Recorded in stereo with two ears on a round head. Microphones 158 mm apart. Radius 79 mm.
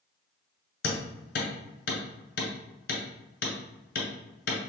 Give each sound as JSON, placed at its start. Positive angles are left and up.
{"t": 0.8, "sound": "hammering", "side_deg": 60, "distance_m": 2.0}